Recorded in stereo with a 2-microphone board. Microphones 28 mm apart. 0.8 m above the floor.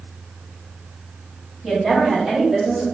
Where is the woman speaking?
20° right (ahead or behind), 1.4 m; by 2.9 s centre (ahead or behind), 0.8 m.